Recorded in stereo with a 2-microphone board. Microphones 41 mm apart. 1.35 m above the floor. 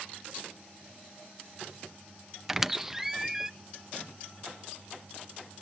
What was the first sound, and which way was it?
A squeak, 10° right (ahead or behind).